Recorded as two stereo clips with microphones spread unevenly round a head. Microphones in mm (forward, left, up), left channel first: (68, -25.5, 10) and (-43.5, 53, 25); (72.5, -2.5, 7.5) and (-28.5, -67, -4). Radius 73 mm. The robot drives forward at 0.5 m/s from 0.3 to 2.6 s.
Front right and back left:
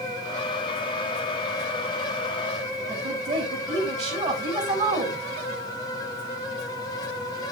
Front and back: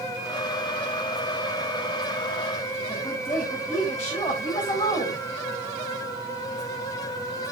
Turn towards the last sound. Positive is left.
turn(degrees=105)